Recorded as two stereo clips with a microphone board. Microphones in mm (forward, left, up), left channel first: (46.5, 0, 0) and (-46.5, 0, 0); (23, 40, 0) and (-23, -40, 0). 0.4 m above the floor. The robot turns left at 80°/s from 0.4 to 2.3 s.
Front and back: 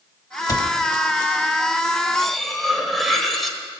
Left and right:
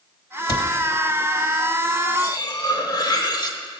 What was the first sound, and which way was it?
A cupboard door, 35° left.